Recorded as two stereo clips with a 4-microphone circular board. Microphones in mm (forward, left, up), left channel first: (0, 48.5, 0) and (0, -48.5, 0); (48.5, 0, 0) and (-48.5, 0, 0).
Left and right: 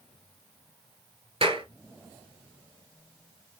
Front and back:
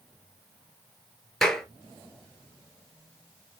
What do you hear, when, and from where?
1.4 s a clap: 85° right, 2.5 m